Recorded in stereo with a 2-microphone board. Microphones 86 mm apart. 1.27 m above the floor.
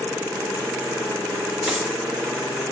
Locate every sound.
1.6 s a dropped coin: 5° right (ahead or behind), 0.8 m